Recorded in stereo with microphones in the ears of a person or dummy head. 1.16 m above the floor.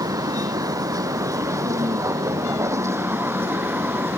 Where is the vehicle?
20° right (ahead or behind); by 4.2 s 5° right (ahead or behind).